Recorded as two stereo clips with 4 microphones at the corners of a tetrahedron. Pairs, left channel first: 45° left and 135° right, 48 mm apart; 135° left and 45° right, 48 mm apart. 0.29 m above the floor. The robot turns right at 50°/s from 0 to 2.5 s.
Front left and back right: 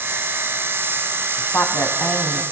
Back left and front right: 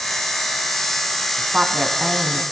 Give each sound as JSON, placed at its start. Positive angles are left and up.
{"t": 1.4, "sound": "a woman speaking", "azimuth_deg": 5, "distance_m": 2.5}